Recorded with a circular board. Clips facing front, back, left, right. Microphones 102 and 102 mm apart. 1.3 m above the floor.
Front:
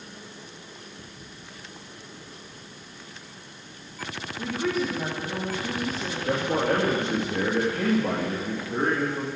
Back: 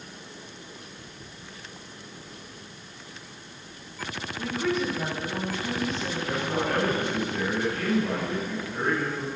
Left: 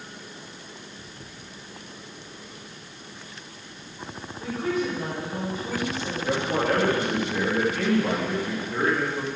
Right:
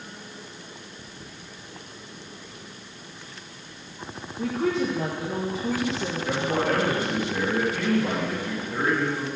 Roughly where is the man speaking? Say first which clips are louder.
Front 5 dB, left 1 dB; ahead.